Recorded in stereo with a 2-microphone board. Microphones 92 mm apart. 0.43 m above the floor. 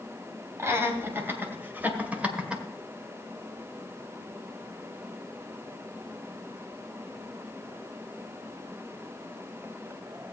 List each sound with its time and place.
0.6 s laughter: 30° right (ahead or behind), 3 m; by 2.6 s 10° right (ahead or behind), 1.7 m